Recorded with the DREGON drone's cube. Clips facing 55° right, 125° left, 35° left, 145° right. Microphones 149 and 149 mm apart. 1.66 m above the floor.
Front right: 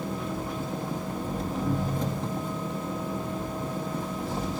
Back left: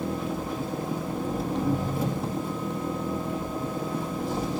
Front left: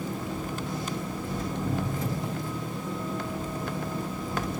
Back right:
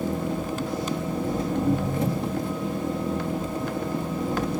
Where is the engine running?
155° right, 1.8 m.